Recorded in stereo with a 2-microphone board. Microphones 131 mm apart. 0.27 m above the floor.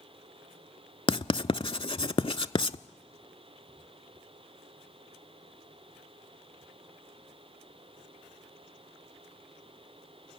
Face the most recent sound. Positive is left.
turn(degrees=45)  # may be behind; listen again after turning